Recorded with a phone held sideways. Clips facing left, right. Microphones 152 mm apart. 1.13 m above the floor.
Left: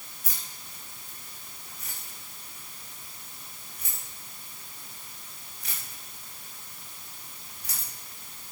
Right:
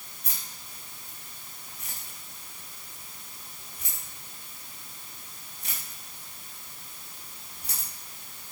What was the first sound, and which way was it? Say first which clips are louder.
Keys jangling: right 1 dB; 30° right (ahead or behind).